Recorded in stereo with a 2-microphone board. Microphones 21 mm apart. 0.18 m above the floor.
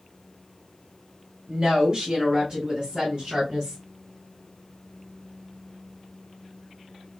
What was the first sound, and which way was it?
A woman speaking, 45° right (ahead or behind).